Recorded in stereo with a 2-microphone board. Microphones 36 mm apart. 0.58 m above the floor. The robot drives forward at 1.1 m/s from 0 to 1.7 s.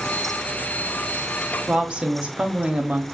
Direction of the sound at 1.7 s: 30° right (ahead or behind).